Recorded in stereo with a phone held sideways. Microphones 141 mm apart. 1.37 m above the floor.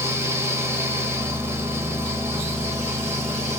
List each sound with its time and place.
0.0 s a fan: 20° right (ahead or behind), 1.0 m